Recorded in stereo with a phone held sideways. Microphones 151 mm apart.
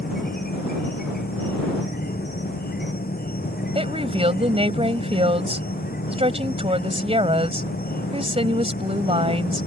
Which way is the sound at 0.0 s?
85° left.